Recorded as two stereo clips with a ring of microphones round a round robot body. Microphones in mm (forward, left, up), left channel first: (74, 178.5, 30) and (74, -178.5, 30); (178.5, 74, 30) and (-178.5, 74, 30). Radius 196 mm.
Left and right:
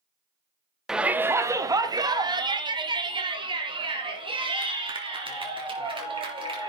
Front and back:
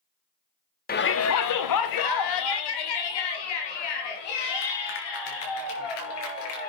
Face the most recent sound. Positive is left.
turn(degrees=-15)